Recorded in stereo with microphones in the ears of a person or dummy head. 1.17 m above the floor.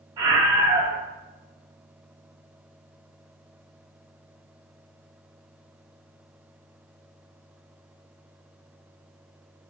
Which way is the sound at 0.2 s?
25° right (ahead or behind).